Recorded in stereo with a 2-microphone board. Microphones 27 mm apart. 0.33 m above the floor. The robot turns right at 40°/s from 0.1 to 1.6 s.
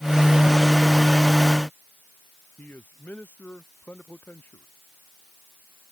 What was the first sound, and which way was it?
A man speaking, 85° left.